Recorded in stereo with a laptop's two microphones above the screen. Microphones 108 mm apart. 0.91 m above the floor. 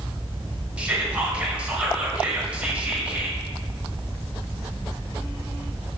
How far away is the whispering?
About 0.6 m.